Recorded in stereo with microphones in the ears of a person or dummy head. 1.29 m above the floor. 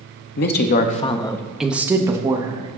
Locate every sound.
0.4 s a woman speaking: 70° left (ahead or behind), 0.8 m; by 2.7 s 25° right (ahead or behind), 1.3 m